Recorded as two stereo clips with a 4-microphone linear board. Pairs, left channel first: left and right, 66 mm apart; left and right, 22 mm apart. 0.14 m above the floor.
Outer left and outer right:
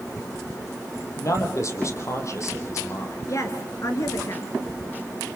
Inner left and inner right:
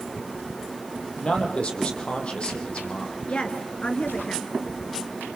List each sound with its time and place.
1.2 s a man speaking: 50° left (ahead or behind), 5 m
3.3 s a woman speaking: 50° left (ahead or behind), 2.5 m